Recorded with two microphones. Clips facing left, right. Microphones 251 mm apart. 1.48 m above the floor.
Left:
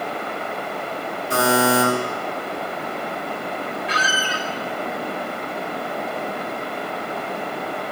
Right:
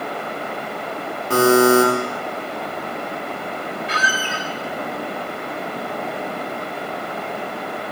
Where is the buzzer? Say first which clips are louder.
Right 6 dB; 75° right (ahead or behind), 4 m.